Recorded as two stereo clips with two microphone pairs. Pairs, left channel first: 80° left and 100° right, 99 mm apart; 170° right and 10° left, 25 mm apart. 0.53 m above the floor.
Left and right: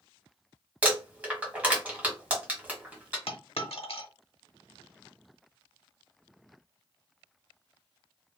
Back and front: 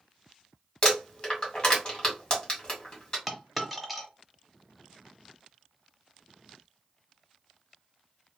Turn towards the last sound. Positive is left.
turn(degrees=95)